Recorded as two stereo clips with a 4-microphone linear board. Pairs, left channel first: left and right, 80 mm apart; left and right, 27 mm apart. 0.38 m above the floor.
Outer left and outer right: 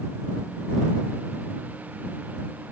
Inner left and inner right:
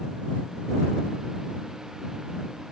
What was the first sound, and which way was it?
Only background noise.